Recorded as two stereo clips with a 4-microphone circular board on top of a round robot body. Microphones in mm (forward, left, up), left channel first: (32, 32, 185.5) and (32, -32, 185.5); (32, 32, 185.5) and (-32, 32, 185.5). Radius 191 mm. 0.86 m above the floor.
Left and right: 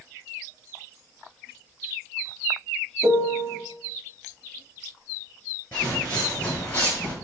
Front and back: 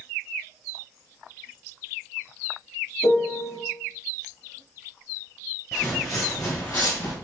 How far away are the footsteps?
About 0.8 m.